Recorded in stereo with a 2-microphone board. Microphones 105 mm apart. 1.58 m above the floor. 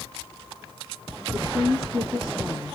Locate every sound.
1.3 s a woman speaking: 10° left (ahead or behind), 2.5 m